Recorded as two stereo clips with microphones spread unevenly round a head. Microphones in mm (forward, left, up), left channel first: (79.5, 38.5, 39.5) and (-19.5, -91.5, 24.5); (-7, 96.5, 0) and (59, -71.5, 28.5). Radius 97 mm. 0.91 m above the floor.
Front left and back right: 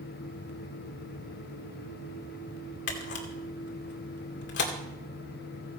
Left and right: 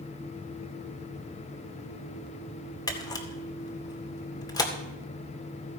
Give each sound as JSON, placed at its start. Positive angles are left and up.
{"t": 2.9, "sound": "a camera shutter", "azimuth_deg": 40, "distance_m": 2.5}